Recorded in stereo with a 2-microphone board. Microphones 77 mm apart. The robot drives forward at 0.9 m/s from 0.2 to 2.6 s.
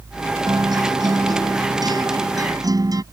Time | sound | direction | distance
0.5 | a guitar | 65° right (ahead or behind) | ?